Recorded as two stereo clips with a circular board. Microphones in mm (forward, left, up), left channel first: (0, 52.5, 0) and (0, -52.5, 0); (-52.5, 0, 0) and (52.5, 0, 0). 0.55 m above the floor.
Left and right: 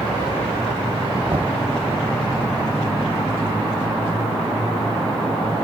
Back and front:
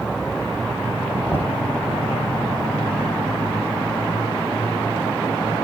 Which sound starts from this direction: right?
Knocking, at 1.3 s.